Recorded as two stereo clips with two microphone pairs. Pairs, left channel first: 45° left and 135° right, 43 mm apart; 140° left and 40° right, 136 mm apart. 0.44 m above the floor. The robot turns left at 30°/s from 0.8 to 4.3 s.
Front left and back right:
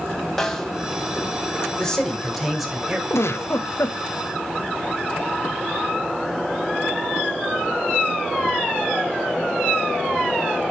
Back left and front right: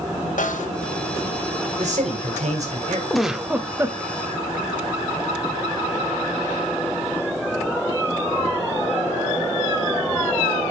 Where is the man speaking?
30° right, 2.5 m; by 3.0 s 65° right, 2.5 m.